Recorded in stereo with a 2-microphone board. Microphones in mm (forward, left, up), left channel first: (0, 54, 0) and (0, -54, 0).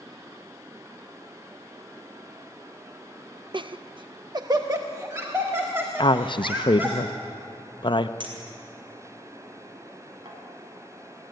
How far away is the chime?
I don't hear a chime.